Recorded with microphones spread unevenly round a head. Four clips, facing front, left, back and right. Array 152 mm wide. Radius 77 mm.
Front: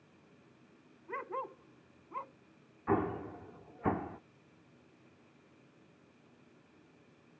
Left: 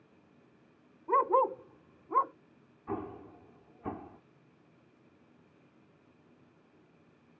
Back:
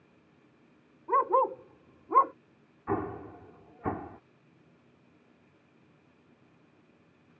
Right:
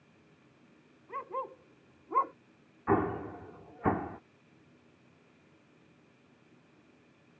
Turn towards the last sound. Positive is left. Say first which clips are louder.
# right 10 dB, even
turn(degrees=-50)